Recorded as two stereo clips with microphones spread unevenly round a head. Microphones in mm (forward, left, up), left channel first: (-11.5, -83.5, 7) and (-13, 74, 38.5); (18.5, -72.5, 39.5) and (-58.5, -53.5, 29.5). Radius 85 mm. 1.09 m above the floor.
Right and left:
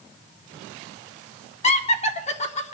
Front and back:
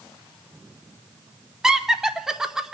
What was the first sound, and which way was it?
Laughter, 115° right.